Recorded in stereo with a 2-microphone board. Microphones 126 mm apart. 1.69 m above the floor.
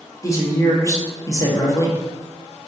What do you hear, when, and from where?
0.2 s a woman speaking: 25° left (ahead or behind), 0.8 m